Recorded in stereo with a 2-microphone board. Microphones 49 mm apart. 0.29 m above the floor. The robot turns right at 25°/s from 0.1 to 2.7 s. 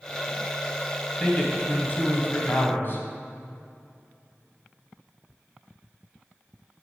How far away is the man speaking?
About 1.9 m.